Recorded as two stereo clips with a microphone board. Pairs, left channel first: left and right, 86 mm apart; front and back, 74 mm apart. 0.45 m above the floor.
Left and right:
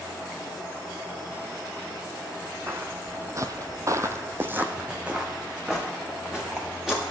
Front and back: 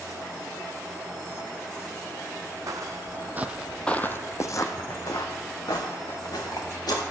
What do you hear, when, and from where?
2.7 s footsteps: 150° right, 1.0 m; by 7.0 s 5° right, 3 m